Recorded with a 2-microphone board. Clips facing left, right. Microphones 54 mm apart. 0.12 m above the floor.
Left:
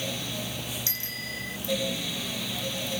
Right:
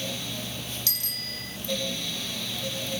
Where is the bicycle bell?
30° left (ahead or behind).